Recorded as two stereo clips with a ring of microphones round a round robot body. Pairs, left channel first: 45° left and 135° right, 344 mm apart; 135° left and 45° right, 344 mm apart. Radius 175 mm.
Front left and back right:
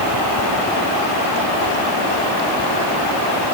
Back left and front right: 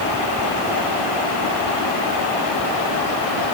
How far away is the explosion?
No explosion in this recording.